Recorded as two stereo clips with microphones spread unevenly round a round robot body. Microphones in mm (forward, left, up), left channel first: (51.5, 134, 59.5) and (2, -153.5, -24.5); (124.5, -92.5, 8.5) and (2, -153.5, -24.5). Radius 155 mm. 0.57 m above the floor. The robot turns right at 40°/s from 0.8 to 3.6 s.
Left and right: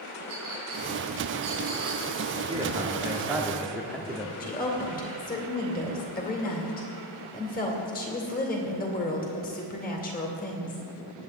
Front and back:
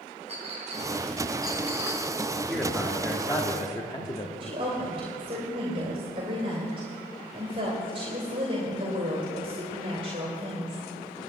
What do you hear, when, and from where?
0.3 s a clink: 115° right, 4 m; by 2.4 s 50° right, 4 m
2.5 s a man speaking: 75° right, 1.4 m; by 4.3 s 35° right, 1.4 m
4.4 s a woman speaking: 150° left, 2.5 m